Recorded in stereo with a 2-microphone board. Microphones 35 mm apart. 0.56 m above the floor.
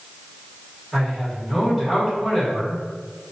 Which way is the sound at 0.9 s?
5° right (ahead or behind).